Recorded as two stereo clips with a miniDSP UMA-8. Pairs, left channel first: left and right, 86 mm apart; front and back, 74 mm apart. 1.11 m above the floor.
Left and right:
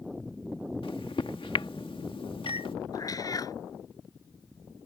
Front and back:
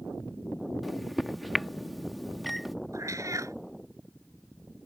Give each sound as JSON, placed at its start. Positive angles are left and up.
{"t": 0.8, "sound": "a microwave", "azimuth_deg": 90}
{"t": 2.9, "sound": "a cat meowing", "azimuth_deg": 135}